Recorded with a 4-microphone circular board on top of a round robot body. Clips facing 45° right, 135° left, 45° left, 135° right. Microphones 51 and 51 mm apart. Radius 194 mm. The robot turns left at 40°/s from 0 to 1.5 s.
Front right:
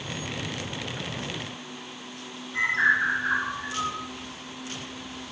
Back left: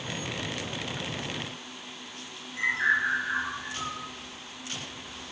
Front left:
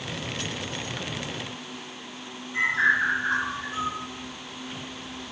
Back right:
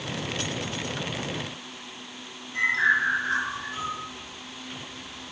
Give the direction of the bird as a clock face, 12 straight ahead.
1 o'clock.